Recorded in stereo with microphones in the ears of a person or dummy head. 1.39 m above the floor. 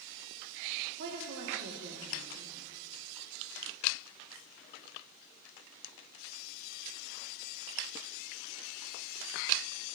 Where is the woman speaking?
60° right (ahead or behind), 1.7 m.